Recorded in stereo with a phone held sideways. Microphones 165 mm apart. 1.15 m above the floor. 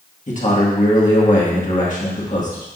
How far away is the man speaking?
About 1.8 m.